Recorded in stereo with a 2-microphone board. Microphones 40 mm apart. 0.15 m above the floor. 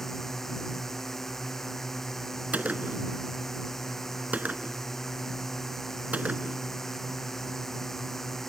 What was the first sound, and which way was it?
A drone, 10° left (ahead or behind).